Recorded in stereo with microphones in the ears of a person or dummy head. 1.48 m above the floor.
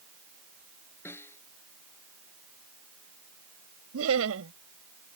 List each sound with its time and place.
1.1 s a snare drum: 15° left (ahead or behind)
3.9 s laughter: 85° right